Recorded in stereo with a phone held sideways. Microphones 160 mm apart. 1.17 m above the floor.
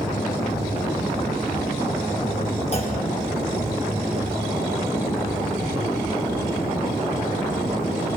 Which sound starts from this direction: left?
A clunk, at 2.7 s.